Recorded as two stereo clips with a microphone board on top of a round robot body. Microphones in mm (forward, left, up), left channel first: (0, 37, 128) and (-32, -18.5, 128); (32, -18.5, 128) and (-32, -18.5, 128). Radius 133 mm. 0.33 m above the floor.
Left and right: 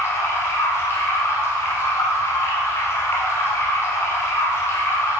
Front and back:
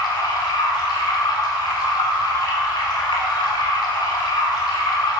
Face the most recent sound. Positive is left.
turn(degrees=5)